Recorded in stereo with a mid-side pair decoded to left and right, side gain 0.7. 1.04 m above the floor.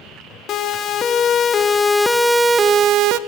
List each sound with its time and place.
0.5 s a siren: 45° left, 2.5 m; by 3.2 s 65° right, 1.1 m